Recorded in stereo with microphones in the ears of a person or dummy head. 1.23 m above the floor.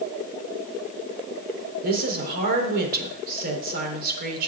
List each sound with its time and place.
1.8 s a woman speaking: 55° right (ahead or behind), 3.5 m